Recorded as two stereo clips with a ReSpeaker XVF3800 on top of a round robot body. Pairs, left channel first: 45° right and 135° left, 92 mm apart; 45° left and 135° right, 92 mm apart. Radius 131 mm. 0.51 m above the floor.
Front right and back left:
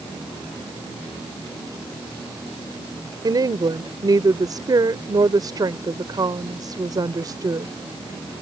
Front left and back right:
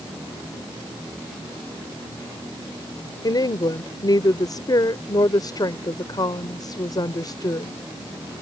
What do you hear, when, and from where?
3.2 s a woman speaking: 90° left